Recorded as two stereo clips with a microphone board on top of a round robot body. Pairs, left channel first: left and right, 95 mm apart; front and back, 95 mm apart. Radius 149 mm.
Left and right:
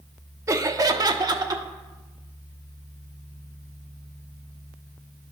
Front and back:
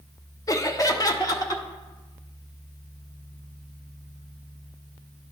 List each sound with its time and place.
0.5 s laughter: 40° right, 0.8 m; by 1.6 s 45° right, 1.4 m